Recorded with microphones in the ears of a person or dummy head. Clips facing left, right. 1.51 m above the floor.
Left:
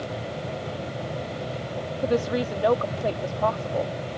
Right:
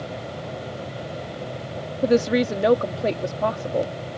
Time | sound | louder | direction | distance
2.0 | a woman speaking | right 6 dB | 25° right (ahead or behind) | ?